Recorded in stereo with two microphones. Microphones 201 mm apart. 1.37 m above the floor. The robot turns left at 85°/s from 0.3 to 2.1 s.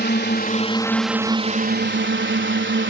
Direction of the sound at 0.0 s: 65° left.